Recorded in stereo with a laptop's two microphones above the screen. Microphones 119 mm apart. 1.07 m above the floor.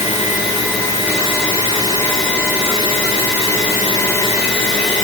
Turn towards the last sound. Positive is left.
No sound to turn to.